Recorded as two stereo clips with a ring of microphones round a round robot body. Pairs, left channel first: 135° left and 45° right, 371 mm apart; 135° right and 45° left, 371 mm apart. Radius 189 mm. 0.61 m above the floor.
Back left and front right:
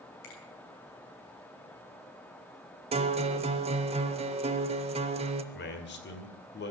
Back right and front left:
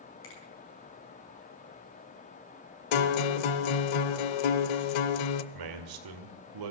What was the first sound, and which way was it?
A finger snap, 165° left.